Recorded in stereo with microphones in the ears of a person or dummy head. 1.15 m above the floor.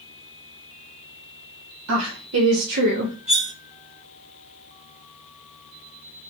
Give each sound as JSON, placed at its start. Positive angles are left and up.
{"t": 1.9, "sound": "a woman speaking", "side_deg": -90, "distance_m": 0.9}
{"t": 3.3, "sound": "cutlery clinking", "side_deg": -40, "distance_m": 0.7}